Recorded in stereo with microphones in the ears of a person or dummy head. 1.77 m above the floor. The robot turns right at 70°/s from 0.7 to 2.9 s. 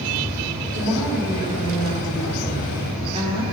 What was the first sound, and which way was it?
A woman speaking, 175° left.